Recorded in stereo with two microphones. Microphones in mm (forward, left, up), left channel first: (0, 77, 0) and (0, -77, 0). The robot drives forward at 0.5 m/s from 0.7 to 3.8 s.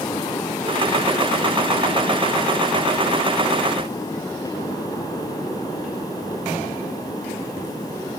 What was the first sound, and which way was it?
Only background noise.